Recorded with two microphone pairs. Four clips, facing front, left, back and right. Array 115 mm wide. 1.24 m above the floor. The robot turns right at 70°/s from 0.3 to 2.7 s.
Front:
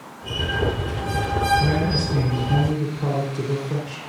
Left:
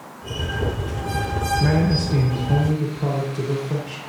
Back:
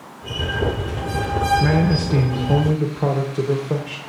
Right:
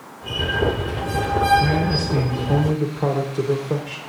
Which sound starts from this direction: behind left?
A man speaking, at 1.6 s.